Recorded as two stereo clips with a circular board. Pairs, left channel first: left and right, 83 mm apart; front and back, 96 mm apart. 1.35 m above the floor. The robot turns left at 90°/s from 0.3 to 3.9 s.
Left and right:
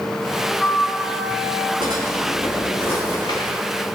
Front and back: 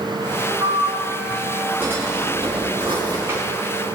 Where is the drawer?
105° right, 6.5 m; by 3.5 s 105° left, 6.5 m.